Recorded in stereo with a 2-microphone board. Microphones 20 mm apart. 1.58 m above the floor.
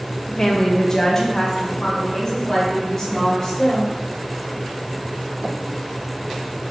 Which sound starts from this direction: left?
A woman speaking, at 0.3 s.